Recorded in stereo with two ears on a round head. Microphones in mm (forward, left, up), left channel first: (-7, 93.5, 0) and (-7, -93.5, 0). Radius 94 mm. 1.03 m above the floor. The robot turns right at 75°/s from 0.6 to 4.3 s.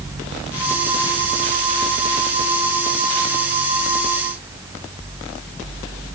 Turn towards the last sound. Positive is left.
No sound to turn to.